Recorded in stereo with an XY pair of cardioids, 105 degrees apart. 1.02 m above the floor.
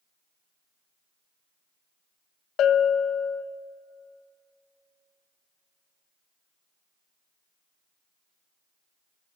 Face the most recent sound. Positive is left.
turn(degrees=70)